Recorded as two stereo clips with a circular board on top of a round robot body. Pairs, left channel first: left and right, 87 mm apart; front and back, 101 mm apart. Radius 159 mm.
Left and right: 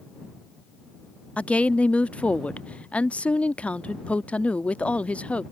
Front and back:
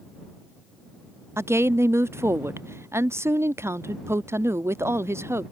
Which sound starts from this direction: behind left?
A woman speaking, at 1.4 s.